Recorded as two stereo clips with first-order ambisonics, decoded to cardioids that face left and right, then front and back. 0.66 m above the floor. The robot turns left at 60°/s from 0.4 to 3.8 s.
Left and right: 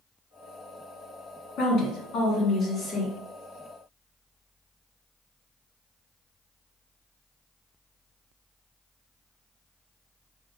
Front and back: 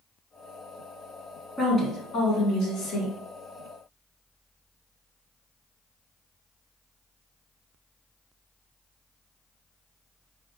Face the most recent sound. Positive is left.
turn(degrees=-50)